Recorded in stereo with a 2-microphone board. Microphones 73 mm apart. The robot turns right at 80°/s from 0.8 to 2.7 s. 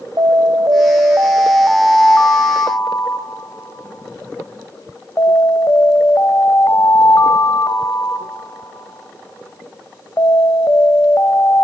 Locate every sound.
0.2 s an alarm: 80° right, 1.6 m; by 11.6 s 70° left, 1.6 m